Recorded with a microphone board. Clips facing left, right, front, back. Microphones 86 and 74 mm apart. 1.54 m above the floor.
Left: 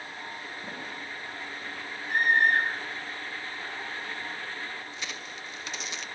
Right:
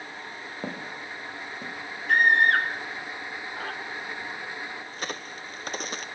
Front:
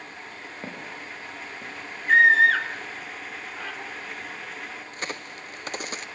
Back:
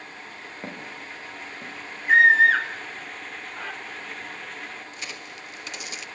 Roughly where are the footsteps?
Right.